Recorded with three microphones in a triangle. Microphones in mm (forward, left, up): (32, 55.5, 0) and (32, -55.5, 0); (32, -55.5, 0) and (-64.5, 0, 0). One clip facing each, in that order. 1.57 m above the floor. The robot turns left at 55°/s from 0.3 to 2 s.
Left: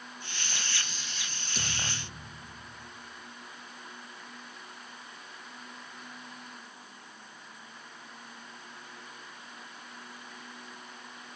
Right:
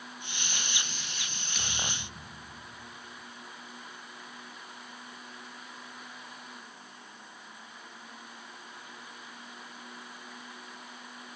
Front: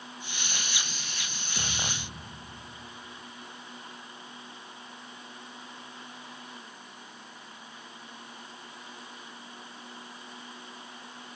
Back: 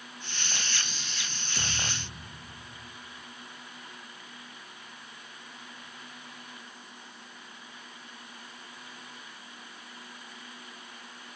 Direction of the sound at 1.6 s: 40° left.